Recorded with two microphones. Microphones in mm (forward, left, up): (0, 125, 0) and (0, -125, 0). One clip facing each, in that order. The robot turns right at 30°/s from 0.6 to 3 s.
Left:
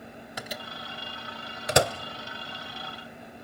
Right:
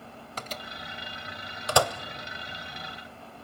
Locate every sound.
0.4 s a microwave: 10° left (ahead or behind), 0.7 m; by 1.9 s 20° left (ahead or behind), 0.7 m